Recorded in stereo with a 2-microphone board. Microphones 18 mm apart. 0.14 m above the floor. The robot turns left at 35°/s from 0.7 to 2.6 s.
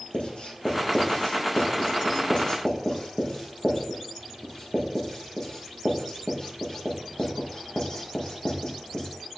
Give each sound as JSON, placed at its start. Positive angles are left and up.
{"t": 0.1, "sound": "writing", "side_deg": 70, "distance_m": 5.0}